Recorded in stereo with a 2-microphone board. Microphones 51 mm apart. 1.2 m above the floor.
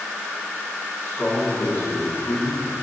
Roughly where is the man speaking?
Left.